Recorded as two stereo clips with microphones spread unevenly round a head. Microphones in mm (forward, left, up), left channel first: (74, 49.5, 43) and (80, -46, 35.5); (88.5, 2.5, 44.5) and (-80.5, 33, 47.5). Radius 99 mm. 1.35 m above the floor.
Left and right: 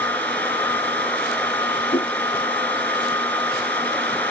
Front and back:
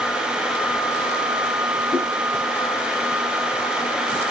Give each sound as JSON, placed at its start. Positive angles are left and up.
{"t": 1.9, "sound": "a whoosh", "azimuth_deg": 75, "distance_m": 7.5}